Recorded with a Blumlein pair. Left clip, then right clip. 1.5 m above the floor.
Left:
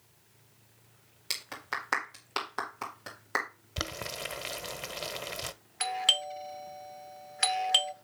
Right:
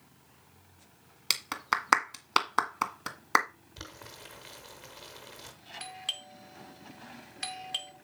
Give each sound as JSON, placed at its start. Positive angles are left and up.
{"t": 1.3, "sound": "a clap", "azimuth_deg": -65, "distance_m": 1.7}
{"t": 3.8, "sound": "boiling", "azimuth_deg": 55, "distance_m": 0.9}
{"t": 5.8, "sound": "a doorbell", "azimuth_deg": 60, "distance_m": 0.7}